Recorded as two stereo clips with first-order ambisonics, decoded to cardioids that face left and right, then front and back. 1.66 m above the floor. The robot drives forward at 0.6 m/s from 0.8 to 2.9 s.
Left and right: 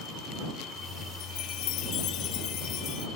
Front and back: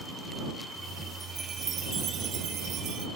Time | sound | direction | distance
1.2 | a chime | 115° left | ?